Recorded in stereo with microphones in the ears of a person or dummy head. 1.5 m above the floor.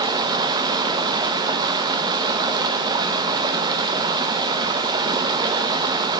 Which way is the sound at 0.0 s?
25° right (ahead or behind).